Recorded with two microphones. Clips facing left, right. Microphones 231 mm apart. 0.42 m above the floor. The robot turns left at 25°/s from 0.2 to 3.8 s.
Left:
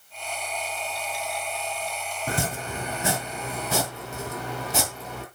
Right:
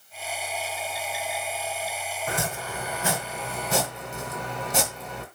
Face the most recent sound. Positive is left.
turn(degrees=0)  # may be behind; listen again after turning